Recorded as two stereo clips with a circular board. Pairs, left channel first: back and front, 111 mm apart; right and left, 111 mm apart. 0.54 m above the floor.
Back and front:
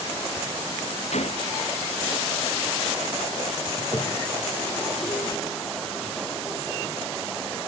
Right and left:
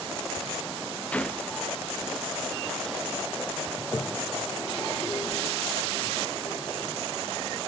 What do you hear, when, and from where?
1.1 s a gunshot: 170° right
3.8 s a toilet flushing: 135° right